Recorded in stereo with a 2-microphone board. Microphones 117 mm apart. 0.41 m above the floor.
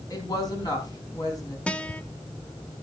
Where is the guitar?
10° left (ahead or behind), 0.8 m.